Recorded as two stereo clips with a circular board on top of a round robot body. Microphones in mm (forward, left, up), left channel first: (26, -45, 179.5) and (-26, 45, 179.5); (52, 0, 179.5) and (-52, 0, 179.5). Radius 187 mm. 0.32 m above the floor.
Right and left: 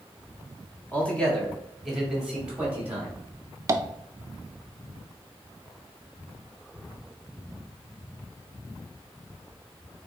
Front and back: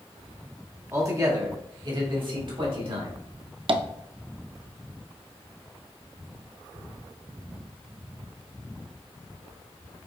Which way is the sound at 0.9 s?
130° right.